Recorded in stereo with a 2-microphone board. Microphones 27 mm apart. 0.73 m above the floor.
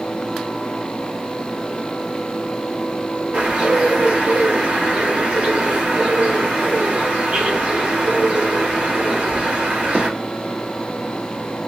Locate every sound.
3.3 s a bird: 45° right (ahead or behind), 1.3 m